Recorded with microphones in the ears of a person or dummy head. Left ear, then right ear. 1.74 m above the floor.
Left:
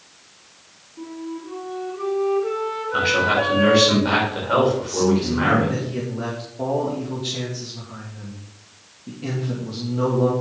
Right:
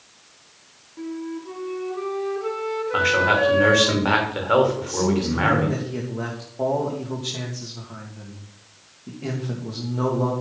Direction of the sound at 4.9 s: 20° right (ahead or behind).